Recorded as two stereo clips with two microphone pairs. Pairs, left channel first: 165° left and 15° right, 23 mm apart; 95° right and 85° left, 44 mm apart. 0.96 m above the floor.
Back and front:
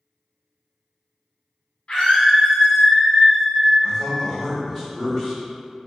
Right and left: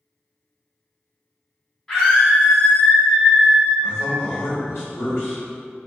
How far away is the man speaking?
About 1.2 m.